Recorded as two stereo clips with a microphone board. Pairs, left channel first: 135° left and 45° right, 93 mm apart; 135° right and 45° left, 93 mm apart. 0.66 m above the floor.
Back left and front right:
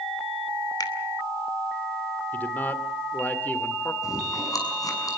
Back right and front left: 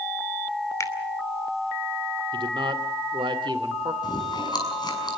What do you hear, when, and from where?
0.8 s a finger snap: 170° left, 2.5 m
2.3 s a man speaking: 65° left, 2 m
4.0 s chewing: 175° right, 6 m